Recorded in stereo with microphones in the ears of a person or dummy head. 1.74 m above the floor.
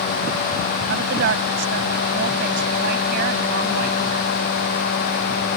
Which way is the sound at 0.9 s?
60° right (ahead or behind).